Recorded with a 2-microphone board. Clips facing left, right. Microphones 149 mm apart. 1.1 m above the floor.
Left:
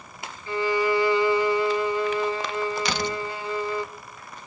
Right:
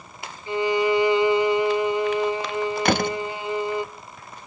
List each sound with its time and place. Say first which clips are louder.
0.5 s a violin: right 2 dB; 20° right (ahead or behind), 0.7 m
2.9 s a door slam: right 6 dB; 55° right (ahead or behind), 0.6 m